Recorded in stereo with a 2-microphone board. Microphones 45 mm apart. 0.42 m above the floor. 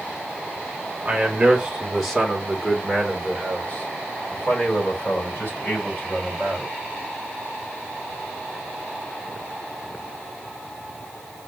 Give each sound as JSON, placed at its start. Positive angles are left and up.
{"t": 1.1, "sound": "a man speaking", "side_deg": -30, "distance_m": 1.5}